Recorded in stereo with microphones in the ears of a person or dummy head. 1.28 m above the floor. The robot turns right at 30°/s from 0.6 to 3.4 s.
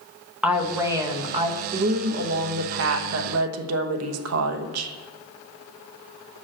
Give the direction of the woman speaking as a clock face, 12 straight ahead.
6 o'clock.